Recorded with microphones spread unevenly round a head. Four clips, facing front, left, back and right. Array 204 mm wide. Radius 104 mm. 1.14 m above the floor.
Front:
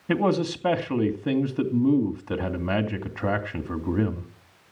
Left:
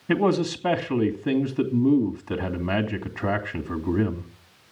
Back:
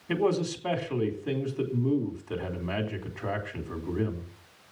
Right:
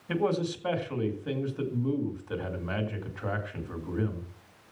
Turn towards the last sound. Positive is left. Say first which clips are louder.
# left 6 dB, front 3 dB
turn(degrees=45)